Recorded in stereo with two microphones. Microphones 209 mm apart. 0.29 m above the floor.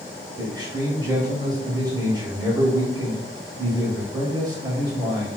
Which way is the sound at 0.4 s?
20° right (ahead or behind).